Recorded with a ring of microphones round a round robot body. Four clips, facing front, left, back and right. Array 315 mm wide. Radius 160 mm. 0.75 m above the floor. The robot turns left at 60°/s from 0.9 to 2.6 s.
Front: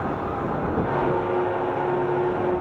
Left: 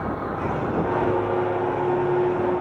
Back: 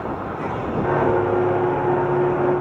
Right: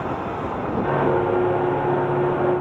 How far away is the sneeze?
I don't hear a sneeze.